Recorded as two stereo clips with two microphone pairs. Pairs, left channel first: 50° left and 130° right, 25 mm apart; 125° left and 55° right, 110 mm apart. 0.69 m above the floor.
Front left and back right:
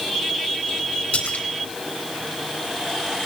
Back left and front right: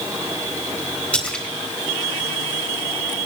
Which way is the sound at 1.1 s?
50° left.